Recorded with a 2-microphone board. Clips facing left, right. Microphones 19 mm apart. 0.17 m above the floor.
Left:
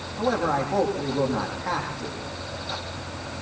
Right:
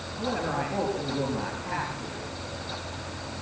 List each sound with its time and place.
0.2 s a man speaking: 45° left (ahead or behind), 7.5 m